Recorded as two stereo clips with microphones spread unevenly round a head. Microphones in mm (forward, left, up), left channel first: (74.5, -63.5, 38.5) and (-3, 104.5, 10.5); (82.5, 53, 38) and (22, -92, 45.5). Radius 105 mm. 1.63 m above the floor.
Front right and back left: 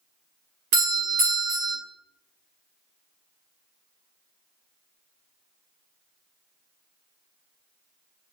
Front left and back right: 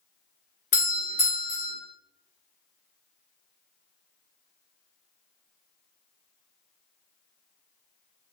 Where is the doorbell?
105° left, 1.4 m.